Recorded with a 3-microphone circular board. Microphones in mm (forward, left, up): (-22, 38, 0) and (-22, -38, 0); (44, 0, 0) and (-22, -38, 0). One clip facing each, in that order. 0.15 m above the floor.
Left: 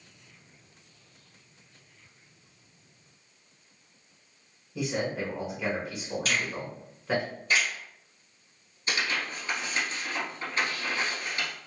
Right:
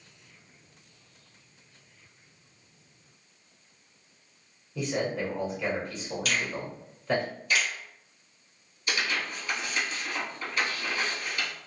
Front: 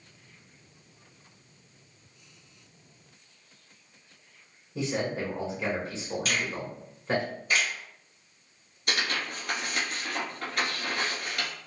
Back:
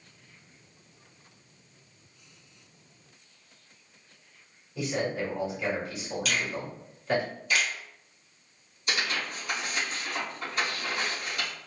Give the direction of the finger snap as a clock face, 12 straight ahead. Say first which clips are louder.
Right 1 dB, back 1 dB; 10 o'clock.